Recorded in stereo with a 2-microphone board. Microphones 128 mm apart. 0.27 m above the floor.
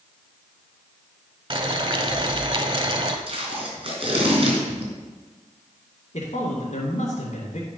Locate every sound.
1.5 s boiling: 40° right (ahead or behind), 1.0 m
3.3 s tape being pulled: 45° right (ahead or behind), 3.5 m
6.1 s a man speaking: 60° left (ahead or behind), 2.5 m